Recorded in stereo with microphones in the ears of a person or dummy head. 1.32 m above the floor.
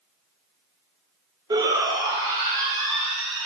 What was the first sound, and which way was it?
A shout, 20° right (ahead or behind).